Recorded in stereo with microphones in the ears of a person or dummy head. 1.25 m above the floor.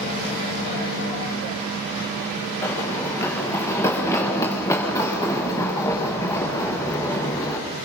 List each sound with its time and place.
2.6 s running footsteps: 15° left (ahead or behind), 5 m; by 7.6 s 20° left (ahead or behind), 8 m